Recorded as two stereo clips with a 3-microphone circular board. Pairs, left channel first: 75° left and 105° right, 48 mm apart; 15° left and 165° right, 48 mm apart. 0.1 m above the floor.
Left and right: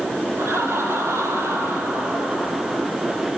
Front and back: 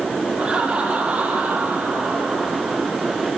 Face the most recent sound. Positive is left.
turn(degrees=-130)